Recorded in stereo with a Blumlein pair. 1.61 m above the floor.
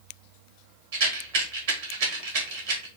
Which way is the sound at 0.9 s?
55° right.